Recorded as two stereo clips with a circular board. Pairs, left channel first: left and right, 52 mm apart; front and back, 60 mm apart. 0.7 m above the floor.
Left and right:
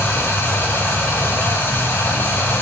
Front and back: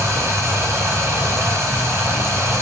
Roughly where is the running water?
Behind left.